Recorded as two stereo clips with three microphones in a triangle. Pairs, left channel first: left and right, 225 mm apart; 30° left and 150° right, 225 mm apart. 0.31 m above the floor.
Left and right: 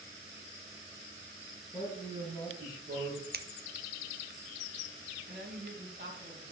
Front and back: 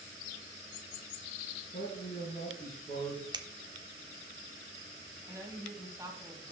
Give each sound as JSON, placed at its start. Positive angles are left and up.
{"t": 1.7, "sound": "a man speaking", "azimuth_deg": -25, "distance_m": 4.5}
{"t": 3.3, "sound": "scissors", "azimuth_deg": -85, "distance_m": 0.7}
{"t": 5.2, "sound": "a woman speaking", "azimuth_deg": -80, "distance_m": 2.5}